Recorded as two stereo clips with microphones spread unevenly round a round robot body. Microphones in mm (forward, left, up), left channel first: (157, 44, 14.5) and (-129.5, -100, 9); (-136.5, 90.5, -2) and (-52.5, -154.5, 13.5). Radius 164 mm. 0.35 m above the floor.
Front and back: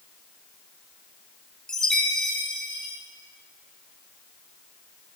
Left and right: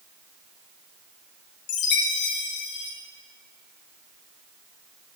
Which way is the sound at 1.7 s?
115° left.